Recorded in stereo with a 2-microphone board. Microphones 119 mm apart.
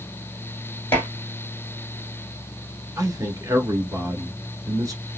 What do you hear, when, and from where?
0.9 s dishes clattering: 20° left (ahead or behind), 1.7 m
3.0 s a man speaking: 30° right (ahead or behind), 1.2 m